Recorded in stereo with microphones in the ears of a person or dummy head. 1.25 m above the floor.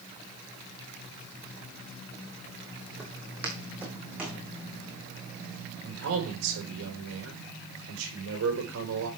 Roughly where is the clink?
I don't hear a clink.